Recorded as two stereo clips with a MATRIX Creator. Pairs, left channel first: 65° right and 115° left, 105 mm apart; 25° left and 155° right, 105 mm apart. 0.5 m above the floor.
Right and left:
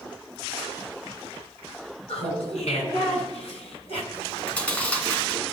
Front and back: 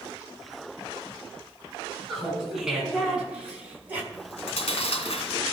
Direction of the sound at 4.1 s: 10° left.